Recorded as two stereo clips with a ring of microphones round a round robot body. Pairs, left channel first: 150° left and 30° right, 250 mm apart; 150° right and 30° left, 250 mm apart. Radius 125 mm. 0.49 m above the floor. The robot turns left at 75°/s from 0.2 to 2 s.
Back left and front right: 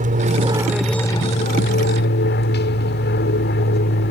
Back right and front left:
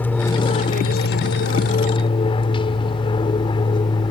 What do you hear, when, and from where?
0.0 s an aircraft: 70° right; by 4.1 s 145° left